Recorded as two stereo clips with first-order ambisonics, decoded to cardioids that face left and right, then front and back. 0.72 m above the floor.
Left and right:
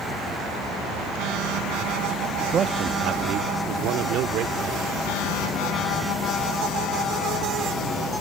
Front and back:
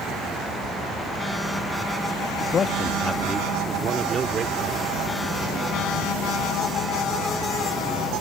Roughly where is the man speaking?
Ahead right.